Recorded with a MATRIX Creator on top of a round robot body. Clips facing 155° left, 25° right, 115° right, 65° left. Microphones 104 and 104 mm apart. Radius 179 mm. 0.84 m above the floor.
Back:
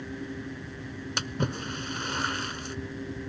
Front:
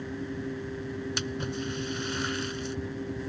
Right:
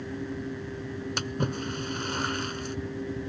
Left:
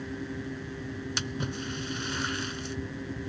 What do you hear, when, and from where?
1.2 s a splash: 155° right